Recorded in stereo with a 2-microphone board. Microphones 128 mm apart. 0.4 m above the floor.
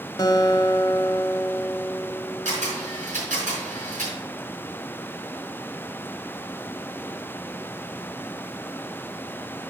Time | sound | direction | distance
0.2 | a guitar | 30° left (ahead or behind) | 1.0 m
2.5 | a camera shutter | 70° right (ahead or behind) | 5 m